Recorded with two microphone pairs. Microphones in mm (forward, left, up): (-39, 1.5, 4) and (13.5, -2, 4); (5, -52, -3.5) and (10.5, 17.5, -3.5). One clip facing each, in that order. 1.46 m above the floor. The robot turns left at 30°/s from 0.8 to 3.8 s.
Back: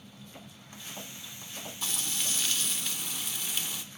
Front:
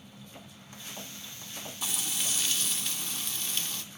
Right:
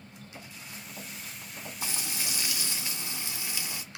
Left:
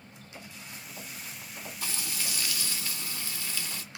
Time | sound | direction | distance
1.8 | frying | 75° right | 0.6 m